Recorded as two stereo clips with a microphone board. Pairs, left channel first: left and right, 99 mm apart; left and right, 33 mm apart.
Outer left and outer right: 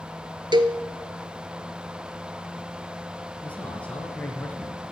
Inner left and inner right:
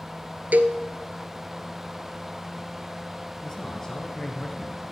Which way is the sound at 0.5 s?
50° right (ahead or behind).